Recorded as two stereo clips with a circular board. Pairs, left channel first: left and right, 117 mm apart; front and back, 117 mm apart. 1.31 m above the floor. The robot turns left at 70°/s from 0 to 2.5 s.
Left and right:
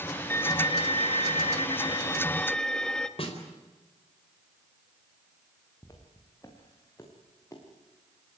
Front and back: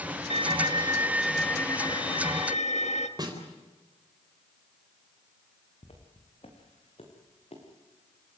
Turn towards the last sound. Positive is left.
turn(degrees=25)